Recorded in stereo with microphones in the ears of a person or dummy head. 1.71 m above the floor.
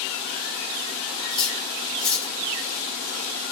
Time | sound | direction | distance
1.3 | cutlery clinking | 10° left (ahead or behind) | 1.9 m